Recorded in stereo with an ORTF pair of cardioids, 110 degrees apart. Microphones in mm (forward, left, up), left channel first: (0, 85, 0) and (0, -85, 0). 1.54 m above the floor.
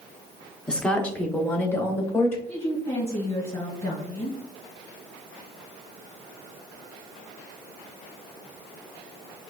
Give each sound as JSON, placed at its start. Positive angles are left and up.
{"t": 0.7, "sound": "a woman speaking", "azimuth_deg": 5, "distance_m": 0.8}
{"t": 2.5, "sound": "a woman speaking", "azimuth_deg": 20, "distance_m": 1.9}